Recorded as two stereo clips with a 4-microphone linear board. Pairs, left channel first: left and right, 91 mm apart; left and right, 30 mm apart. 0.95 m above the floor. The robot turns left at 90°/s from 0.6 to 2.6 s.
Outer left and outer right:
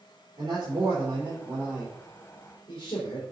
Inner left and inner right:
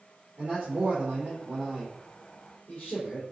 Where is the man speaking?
55° right, 3 m; by 3.2 s 125° left, 3 m.